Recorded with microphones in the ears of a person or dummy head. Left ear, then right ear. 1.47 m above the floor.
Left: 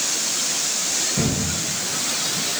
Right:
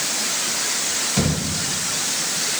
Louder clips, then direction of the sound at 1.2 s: Right 1 dB; 50° right (ahead or behind).